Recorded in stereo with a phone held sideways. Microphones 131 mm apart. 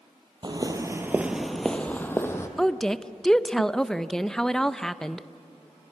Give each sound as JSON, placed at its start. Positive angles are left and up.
{"t": 0.4, "sound": "footsteps", "side_deg": -35, "distance_m": 1.3}
{"t": 2.6, "sound": "a woman speaking", "side_deg": 5, "distance_m": 0.5}